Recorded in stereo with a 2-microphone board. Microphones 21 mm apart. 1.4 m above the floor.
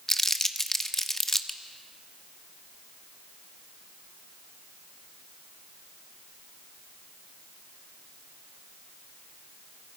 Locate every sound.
0.1 s crumpling: 20° left (ahead or behind), 1.1 m